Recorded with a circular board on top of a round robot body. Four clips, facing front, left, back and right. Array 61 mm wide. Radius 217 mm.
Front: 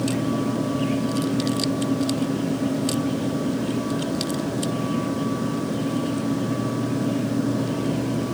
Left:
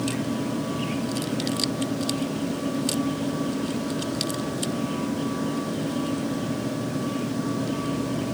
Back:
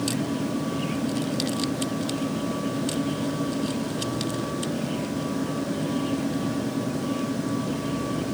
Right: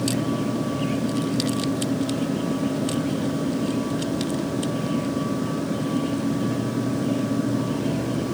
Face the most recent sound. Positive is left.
No sound to turn to.